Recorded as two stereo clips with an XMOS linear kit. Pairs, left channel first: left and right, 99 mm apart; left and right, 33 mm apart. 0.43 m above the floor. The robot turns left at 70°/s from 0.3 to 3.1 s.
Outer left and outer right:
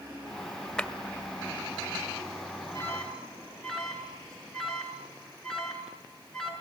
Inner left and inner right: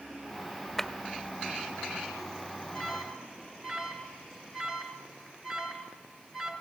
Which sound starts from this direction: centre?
A clap, at 0.8 s.